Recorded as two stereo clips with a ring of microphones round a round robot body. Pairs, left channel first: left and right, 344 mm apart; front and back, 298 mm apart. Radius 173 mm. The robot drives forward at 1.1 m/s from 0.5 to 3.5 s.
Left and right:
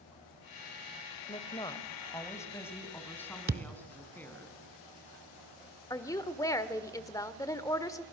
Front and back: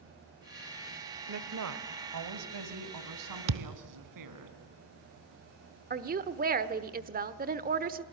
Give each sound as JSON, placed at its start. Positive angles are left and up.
{"t": 1.3, "sound": "a woman speaking", "azimuth_deg": 160, "distance_m": 1.2}
{"t": 3.5, "sound": "a thud", "azimuth_deg": -155, "distance_m": 0.9}
{"t": 5.9, "sound": "a woman speaking", "azimuth_deg": 160, "distance_m": 1.1}